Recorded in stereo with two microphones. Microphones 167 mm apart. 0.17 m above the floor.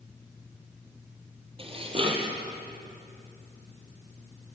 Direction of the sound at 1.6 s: 35° right (ahead or behind).